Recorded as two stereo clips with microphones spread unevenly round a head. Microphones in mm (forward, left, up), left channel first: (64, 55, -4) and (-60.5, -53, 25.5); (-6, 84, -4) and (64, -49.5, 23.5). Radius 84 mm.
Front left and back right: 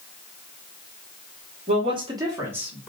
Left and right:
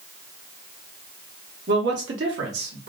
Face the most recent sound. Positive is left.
turn(degrees=-50)